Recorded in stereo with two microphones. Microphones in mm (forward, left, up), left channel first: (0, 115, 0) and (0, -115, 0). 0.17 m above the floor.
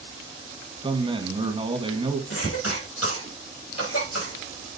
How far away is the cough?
About 4.5 m.